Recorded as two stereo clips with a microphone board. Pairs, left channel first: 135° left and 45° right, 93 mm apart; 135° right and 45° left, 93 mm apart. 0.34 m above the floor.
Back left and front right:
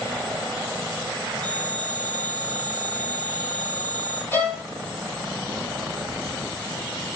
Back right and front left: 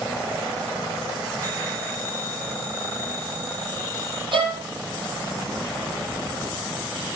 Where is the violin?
70° left, 4 m.